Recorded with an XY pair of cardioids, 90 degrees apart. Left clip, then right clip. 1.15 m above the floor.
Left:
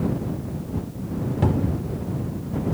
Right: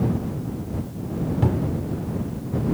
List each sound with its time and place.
1.4 s a cupboard door: 20° left